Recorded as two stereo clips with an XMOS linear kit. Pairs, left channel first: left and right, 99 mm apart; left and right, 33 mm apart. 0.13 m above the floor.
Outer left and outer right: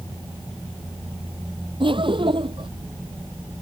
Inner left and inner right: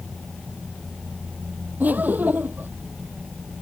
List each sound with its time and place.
1.8 s laughter: 55° right (ahead or behind)